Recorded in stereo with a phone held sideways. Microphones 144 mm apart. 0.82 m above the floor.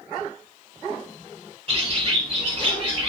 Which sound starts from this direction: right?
A bird, at 1.7 s.